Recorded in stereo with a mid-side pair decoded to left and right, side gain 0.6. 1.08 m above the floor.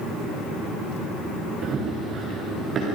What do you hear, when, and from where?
1.6 s running footsteps: 50° right, 7 m